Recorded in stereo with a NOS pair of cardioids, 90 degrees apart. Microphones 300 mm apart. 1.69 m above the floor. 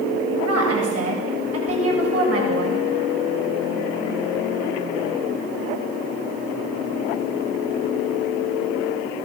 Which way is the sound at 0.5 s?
55° right.